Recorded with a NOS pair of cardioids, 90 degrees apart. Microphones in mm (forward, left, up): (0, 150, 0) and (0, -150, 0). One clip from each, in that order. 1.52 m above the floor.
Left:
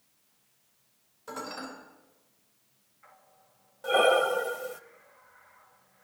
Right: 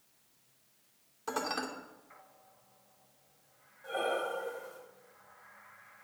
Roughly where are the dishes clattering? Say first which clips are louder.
Right 3 dB; ahead right.